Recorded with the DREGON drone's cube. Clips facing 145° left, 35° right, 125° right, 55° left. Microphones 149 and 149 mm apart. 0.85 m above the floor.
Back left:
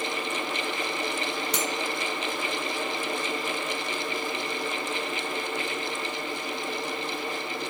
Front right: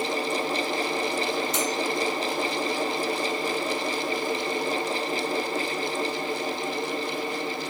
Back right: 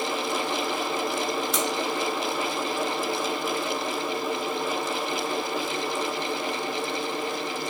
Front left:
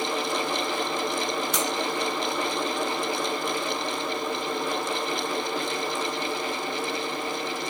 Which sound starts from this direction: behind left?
Cutlery clinking, at 1.5 s.